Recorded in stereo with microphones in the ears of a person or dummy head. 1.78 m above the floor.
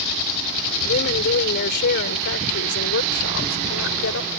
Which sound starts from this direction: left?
A woman speaking, at 0.8 s.